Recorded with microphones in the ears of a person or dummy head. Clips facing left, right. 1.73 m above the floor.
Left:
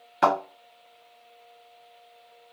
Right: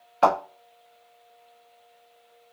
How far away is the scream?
I don't hear a scream.